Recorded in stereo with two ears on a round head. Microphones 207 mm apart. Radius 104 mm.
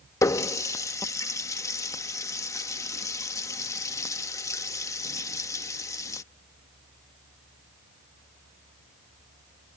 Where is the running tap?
15° left (ahead or behind).